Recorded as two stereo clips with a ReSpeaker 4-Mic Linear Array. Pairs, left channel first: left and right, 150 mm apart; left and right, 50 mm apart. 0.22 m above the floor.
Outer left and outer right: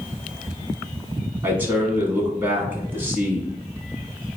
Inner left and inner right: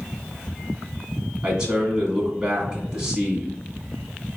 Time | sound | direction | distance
1.4 | a man speaking | 15° right (ahead or behind) | 1.4 m